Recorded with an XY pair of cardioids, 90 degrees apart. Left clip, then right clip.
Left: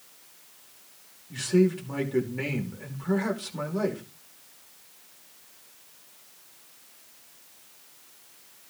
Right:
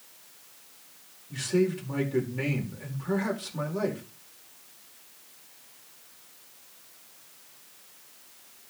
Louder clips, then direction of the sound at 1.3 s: Left 3 dB; 15° left.